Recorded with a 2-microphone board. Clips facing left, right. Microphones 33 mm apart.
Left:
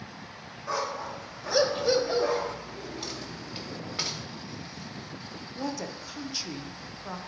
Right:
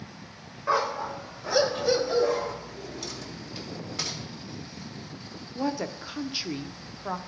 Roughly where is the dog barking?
Right.